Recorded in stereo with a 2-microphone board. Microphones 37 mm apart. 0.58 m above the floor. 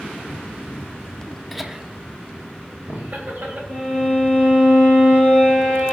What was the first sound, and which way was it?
Laughter, centre (ahead or behind).